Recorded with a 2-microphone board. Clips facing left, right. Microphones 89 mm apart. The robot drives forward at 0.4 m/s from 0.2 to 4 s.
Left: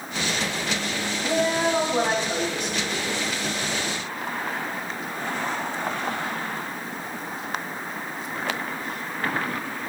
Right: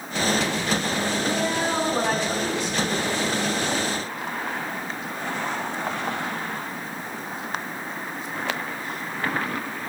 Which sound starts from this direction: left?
A woman speaking, at 1.2 s.